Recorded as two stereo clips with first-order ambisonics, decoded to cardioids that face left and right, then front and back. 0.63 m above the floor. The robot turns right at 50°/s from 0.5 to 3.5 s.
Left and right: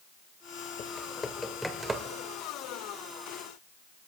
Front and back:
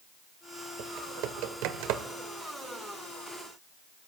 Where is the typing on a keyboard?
140° left, 1.5 m; by 2.0 s 160° right, 1.5 m.